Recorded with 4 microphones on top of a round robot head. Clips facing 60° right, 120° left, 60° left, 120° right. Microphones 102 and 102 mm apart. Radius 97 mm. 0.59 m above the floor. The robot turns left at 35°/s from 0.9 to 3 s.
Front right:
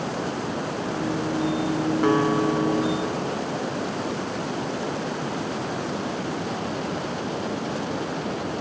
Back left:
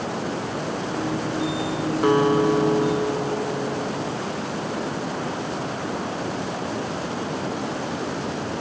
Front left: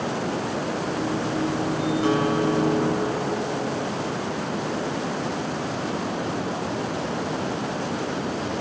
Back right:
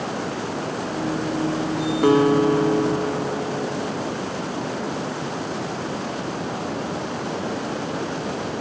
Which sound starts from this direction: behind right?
A guitar, at 2.0 s.